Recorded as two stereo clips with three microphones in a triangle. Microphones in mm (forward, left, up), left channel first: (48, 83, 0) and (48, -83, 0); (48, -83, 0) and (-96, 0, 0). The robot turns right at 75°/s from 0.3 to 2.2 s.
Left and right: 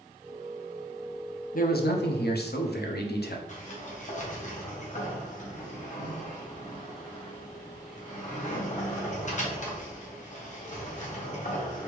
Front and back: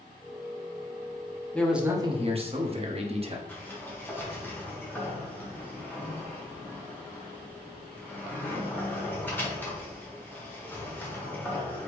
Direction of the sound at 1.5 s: 50° left.